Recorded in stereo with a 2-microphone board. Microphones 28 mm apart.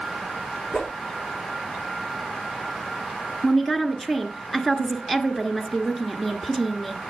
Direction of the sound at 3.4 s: 5° left (ahead or behind).